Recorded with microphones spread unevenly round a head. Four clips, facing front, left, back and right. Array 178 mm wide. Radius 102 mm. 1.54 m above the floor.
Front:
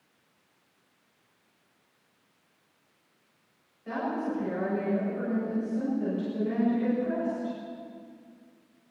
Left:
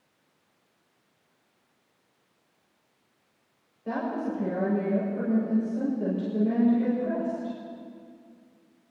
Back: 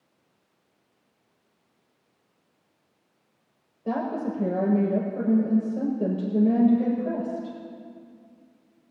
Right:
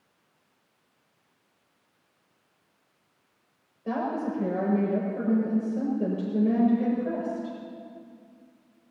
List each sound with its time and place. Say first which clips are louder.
3.9 s a woman speaking: right 1 dB, back 3 dB; straight behind, 7.5 m